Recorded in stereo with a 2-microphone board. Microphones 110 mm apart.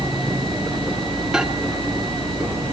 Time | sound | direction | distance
1.3 | a microwave | 10° right (ahead or behind) | 1.9 m